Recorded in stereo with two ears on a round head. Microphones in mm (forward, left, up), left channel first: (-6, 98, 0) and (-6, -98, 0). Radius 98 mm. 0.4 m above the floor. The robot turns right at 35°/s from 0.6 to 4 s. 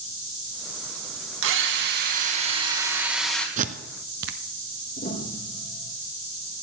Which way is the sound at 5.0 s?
35° left (ahead or behind).